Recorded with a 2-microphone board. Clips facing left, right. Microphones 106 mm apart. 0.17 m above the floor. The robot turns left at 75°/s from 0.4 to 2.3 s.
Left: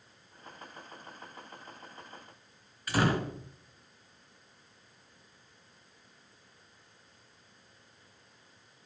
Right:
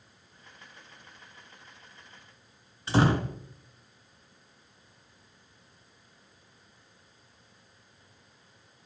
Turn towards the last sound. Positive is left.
turn(degrees=-25)  # may be behind; listen again after turning